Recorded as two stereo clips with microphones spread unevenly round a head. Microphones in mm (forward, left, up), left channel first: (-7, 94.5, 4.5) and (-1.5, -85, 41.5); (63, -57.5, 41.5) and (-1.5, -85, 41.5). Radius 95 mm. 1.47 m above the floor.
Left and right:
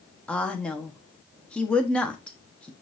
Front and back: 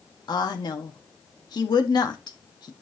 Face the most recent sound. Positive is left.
turn(degrees=10)